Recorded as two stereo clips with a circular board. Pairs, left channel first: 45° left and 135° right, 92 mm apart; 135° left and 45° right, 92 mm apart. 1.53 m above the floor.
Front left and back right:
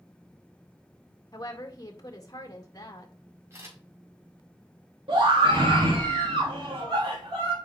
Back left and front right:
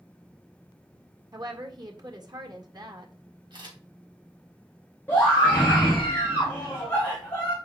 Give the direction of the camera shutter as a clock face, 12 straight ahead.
2 o'clock.